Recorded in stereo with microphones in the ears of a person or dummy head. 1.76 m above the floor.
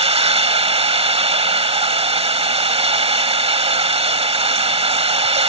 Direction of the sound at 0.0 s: 35° right (ahead or behind).